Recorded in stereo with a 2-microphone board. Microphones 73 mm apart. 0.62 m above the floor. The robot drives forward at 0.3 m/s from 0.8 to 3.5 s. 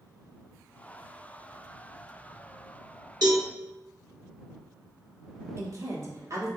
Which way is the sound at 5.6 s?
45° right (ahead or behind).